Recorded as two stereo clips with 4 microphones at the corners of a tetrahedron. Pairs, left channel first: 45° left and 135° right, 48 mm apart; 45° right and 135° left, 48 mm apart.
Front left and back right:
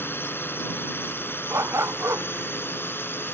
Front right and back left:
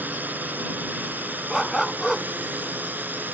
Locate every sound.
0.0 s a drone: 80° left
1.5 s a dog barking: 140° right